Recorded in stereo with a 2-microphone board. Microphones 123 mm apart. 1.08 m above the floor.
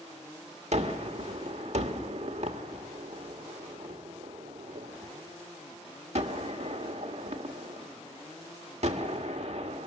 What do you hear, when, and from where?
0.7 s a gunshot: 60° right (ahead or behind), 1.5 m